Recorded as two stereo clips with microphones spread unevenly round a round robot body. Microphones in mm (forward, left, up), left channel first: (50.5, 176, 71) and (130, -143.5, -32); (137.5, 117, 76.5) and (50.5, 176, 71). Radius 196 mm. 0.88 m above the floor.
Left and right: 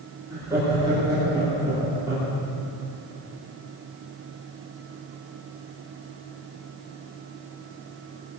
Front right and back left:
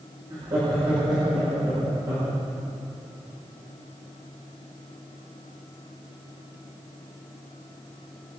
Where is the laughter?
150° right, 2.5 m.